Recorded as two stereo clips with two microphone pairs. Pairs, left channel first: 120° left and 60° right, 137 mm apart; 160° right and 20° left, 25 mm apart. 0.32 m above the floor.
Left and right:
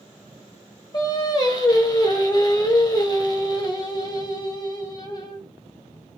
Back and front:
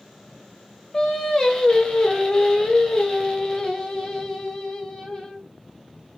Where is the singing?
165° left, 0.7 m.